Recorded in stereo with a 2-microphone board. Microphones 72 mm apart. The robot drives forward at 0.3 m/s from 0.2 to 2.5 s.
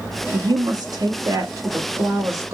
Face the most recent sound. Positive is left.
turn(degrees=-45)  # may be behind; listen again after turning